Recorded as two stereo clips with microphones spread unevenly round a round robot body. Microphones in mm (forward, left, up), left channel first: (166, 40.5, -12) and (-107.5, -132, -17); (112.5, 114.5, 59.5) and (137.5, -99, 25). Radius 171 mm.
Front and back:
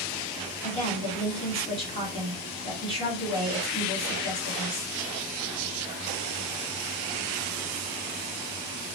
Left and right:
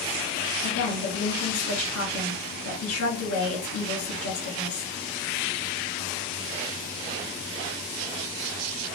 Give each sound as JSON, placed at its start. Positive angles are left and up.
{"t": 0.6, "sound": "a woman speaking", "azimuth_deg": 105, "distance_m": 2.5}